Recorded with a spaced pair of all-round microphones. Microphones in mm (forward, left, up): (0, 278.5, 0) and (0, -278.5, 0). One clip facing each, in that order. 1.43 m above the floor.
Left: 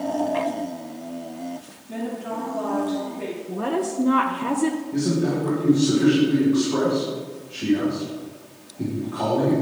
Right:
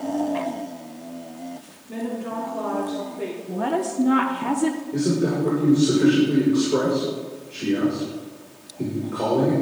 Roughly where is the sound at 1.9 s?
Centre.